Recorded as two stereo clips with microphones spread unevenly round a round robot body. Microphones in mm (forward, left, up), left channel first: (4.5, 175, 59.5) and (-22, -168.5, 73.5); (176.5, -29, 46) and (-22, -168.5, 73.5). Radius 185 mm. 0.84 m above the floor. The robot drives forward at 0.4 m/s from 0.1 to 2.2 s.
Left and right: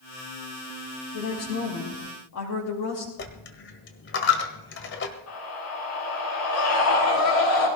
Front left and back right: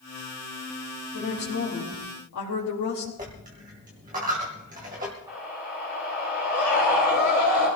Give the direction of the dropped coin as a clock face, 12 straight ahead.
7 o'clock.